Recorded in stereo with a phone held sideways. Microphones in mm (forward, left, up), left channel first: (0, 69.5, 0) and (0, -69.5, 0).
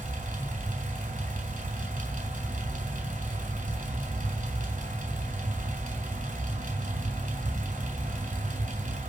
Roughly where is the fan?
Right.